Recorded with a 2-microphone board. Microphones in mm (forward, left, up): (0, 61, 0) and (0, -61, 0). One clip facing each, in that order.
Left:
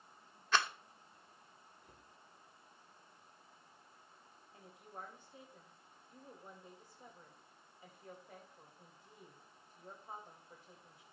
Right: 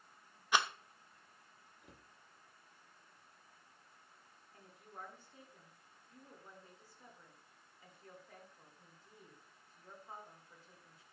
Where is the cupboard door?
75° right (ahead or behind), 1.7 m.